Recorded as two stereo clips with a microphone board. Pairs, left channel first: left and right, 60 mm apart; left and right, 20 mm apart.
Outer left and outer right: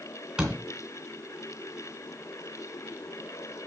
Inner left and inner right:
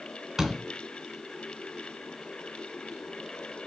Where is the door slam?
15° right (ahead or behind), 2 m.